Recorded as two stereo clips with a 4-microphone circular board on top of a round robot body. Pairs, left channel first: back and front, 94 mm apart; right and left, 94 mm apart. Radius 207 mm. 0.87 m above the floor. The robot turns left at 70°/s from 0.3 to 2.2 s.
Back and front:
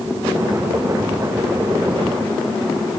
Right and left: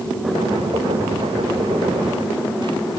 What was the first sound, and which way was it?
Only background noise.